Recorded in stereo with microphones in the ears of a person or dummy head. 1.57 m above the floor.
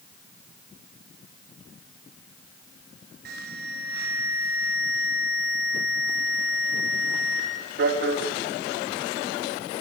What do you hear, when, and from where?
3.2 s an alarm: 60° right (ahead or behind), 5.5 m